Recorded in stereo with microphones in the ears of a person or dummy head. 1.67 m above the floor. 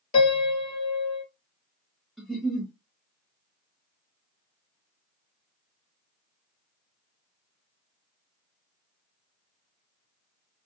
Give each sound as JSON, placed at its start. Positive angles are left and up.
{"t": 0.1, "sound": "a piano", "side_deg": 35, "distance_m": 1.2}
{"t": 2.2, "sound": "a giggle", "side_deg": 10, "distance_m": 1.1}